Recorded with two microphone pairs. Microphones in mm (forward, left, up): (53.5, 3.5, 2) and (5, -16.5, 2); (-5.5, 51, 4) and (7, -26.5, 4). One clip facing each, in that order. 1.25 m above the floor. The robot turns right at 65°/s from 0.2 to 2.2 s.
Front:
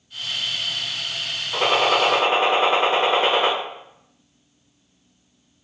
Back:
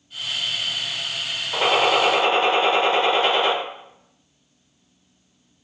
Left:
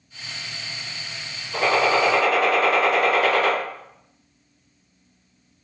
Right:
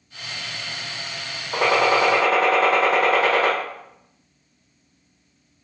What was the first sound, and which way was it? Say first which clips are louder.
A gunshot: even, right 1 dB; 70° right.